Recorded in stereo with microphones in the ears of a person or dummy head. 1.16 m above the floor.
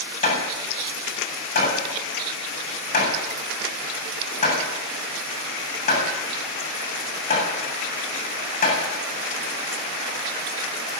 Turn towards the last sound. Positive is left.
turn(degrees=50)  # may be behind; listen again after turning